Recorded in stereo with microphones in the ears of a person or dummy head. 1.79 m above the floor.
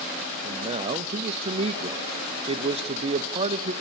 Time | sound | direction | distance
0.4 | a man speaking | 25° right (ahead or behind) | 0.8 m